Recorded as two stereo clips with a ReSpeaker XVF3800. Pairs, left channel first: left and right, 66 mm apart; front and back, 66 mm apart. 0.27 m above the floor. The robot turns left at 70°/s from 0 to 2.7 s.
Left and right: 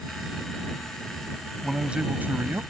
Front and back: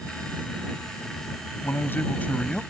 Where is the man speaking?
5° right; by 2.6 s 75° right.